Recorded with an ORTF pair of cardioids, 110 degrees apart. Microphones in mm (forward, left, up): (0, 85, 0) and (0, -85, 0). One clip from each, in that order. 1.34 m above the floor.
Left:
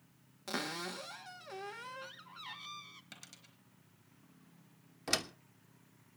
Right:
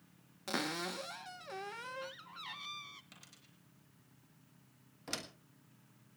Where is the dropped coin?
30° left, 3.5 m.